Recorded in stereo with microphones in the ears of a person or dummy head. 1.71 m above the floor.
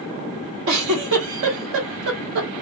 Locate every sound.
0.7 s a giggle: 75° right (ahead or behind), 2 m